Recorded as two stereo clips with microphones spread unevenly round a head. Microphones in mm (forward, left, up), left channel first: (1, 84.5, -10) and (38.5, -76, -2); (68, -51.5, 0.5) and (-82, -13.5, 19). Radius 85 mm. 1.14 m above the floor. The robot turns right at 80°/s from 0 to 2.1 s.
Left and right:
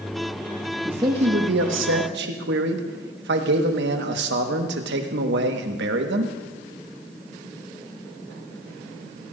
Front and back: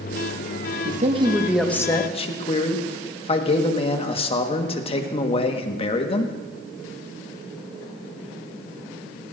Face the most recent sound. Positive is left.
turn(degrees=-60)